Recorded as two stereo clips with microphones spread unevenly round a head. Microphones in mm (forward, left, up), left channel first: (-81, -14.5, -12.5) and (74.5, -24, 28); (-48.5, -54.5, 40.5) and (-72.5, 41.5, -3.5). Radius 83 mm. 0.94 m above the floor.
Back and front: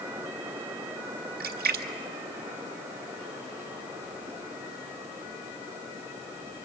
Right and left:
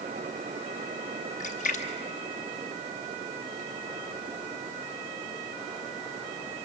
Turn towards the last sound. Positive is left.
turn(degrees=-35)